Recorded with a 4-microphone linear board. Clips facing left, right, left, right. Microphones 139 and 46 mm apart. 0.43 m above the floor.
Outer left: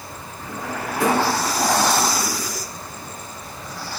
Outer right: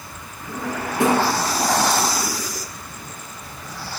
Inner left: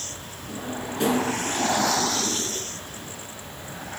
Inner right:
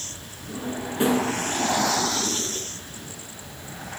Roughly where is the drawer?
Right.